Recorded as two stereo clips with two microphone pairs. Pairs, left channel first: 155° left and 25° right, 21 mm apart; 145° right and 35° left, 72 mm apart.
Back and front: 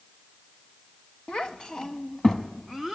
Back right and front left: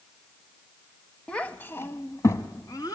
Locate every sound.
1.3 s a child speaking: 145° left, 0.9 m; by 3.0 s 125° right, 1.4 m